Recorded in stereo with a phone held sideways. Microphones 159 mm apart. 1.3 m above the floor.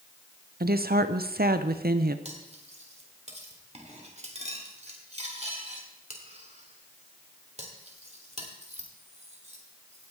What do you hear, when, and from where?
0.6 s a woman speaking: 75° right (ahead or behind), 0.7 m
2.2 s cutlery clinking: 45° right (ahead or behind), 2 m